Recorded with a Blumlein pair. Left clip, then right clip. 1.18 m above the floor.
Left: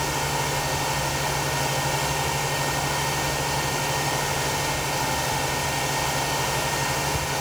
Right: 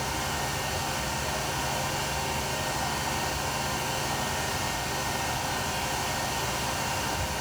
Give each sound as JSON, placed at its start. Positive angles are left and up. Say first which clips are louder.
{"t": 0.0, "sound": "a fan", "louder": "left 5 dB", "azimuth_deg": 40, "distance_m": 1.8}